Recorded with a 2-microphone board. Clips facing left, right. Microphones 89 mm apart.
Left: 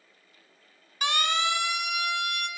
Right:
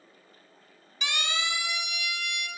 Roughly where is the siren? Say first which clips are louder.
Left 6 dB; left.